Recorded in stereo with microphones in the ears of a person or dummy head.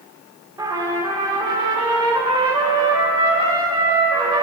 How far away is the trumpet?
About 0.9 m.